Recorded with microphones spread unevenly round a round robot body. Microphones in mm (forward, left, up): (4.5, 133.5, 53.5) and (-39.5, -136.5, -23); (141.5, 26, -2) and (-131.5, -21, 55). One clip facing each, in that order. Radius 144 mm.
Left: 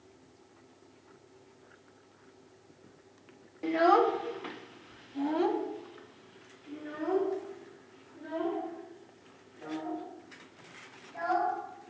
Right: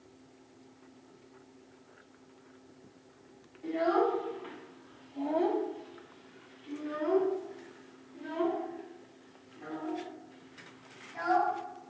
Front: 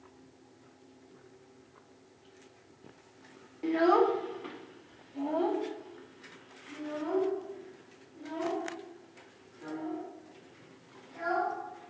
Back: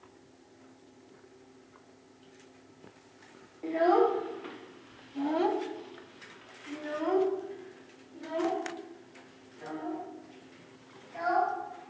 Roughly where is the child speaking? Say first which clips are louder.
Left 3 dB, even; left.